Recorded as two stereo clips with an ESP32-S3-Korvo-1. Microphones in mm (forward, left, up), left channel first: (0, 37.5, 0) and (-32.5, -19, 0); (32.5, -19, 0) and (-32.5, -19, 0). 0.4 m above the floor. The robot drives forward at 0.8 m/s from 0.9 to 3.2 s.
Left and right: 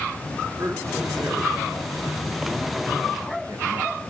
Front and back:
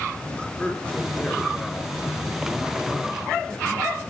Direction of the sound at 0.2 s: 75° right.